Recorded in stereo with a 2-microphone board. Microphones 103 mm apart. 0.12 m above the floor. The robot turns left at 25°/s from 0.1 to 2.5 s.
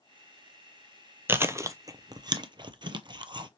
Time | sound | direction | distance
1.3 | chewing | 20° right (ahead or behind) | 0.5 m